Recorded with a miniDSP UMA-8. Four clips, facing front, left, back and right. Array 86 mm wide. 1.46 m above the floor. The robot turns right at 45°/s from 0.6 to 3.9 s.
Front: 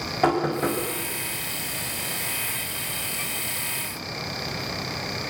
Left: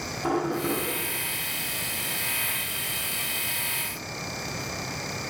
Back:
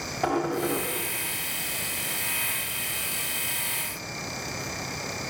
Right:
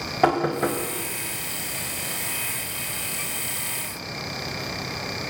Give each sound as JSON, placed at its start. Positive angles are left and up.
{"t": 0.2, "sound": "knocking", "azimuth_deg": -70, "distance_m": 6.0}